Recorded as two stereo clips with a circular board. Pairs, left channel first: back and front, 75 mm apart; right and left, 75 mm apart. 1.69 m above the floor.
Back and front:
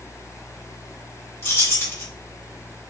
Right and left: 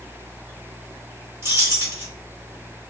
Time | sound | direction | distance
1.4 | keys jangling | 130° left | 1.2 m